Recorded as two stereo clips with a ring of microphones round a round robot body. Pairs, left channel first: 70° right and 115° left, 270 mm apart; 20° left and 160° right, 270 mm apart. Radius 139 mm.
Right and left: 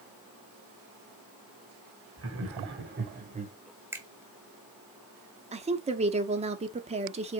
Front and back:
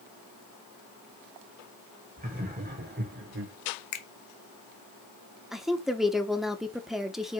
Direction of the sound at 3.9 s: 30° left.